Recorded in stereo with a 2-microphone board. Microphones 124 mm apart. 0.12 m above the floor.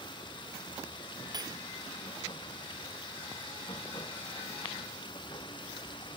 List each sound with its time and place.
0.0 s running water: 40° left (ahead or behind)
1.3 s cutlery clinking: 35° right (ahead or behind)